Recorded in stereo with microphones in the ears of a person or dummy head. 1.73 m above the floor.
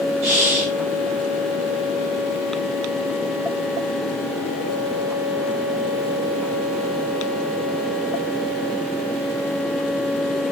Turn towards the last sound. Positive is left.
turn(degrees=-15)  # may be behind; listen again after turning